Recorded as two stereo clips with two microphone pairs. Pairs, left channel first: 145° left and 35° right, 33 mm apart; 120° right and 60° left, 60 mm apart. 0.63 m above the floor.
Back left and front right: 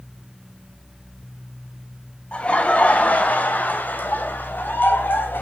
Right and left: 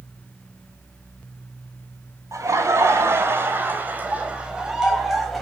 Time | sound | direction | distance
2.3 | laughter | 90° left | 4 m